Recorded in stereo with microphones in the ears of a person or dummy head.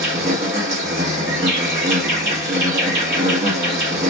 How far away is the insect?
About 1.2 m.